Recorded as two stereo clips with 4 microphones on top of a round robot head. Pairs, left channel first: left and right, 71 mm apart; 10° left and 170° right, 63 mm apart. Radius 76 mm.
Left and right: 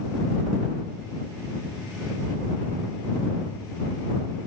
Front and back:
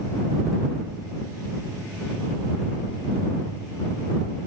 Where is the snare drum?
No snare drum in this recording.